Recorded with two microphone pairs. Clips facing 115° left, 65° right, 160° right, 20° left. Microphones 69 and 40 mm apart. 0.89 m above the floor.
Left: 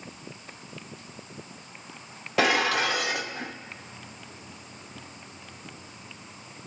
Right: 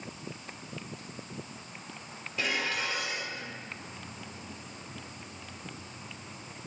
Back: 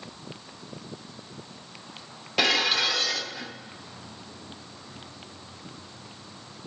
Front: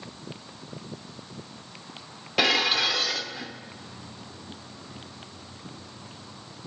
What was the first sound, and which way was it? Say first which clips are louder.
Dishes clattering: left 9 dB, front 1 dB; 105° left.